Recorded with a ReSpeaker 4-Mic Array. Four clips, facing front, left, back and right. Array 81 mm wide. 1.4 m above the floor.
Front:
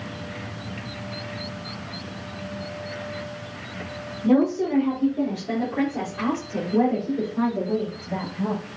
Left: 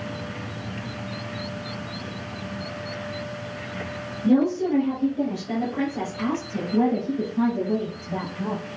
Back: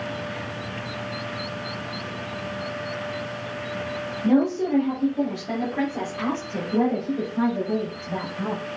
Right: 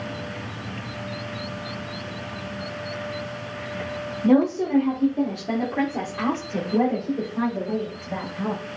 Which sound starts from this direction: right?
A woman speaking, at 4.2 s.